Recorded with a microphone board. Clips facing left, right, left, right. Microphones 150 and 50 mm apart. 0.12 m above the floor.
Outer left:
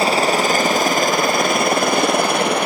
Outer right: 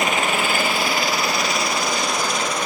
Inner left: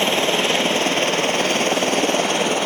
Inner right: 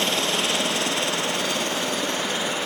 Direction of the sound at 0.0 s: 35° left (ahead or behind).